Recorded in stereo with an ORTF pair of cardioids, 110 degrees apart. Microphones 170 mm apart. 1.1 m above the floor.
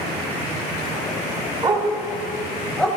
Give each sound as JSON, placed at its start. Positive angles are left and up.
{"t": 1.6, "sound": "a dog barking", "azimuth_deg": -25, "distance_m": 2.0}